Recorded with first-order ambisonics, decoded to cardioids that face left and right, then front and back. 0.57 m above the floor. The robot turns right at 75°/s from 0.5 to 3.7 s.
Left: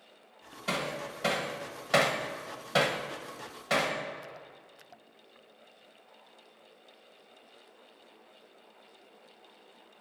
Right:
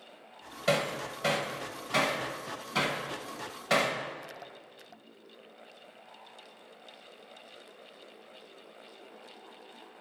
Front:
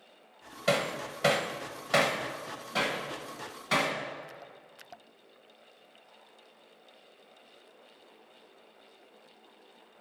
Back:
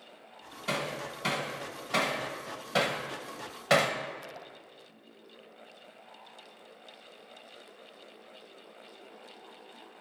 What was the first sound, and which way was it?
Hammering, 40° right.